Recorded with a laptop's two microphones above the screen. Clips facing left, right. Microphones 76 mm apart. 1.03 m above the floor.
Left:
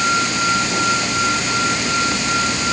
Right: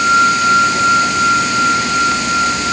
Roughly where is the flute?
No flute in this recording.